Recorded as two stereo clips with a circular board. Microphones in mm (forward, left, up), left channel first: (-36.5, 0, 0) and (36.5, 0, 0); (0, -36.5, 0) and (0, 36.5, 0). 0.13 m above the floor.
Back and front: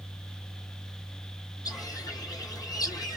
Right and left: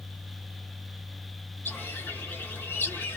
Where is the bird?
150° right, 1.1 m.